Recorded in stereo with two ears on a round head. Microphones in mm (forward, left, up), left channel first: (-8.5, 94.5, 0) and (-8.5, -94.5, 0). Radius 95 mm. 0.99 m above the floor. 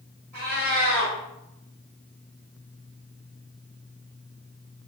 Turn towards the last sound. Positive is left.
turn(degrees=-50)  # may be behind; listen again after turning